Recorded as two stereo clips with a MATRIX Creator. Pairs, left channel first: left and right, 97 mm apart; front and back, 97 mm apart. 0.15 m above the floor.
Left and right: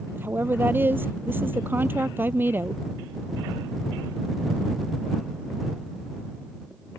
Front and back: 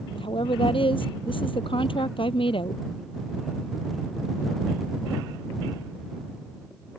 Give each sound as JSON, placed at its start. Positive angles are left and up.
{"t": 0.1, "sound": "a woman speaking", "azimuth_deg": -20}